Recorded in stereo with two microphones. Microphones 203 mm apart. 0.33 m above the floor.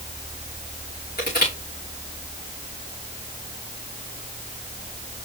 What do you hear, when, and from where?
1.2 s crushing: 50° left (ahead or behind), 5.5 m